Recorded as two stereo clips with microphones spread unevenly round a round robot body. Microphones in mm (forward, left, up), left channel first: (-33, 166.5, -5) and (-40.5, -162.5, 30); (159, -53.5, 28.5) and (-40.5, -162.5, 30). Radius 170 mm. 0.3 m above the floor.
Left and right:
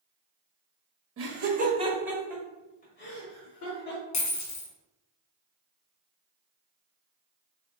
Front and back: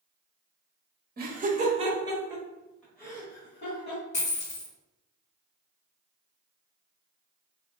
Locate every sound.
1.2 s laughter: 130° right, 1.1 m; by 4.0 s 85° left, 1.5 m
4.1 s a dropped coin: 85° left, 1.5 m